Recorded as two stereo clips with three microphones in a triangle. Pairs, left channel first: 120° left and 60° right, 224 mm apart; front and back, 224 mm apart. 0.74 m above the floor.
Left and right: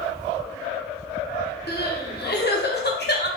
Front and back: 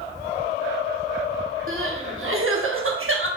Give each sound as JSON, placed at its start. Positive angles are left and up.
{"t": 1.7, "sound": "crying", "azimuth_deg": 160, "distance_m": 0.8}